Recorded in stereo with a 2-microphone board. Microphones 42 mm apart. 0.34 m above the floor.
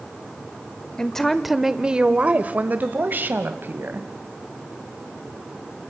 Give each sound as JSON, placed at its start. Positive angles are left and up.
{"t": 1.0, "sound": "a woman speaking", "side_deg": 15, "distance_m": 0.9}